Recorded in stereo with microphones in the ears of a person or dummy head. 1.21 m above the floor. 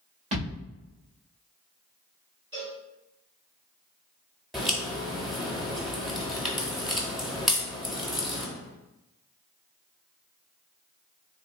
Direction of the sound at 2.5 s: 25° right (ahead or behind).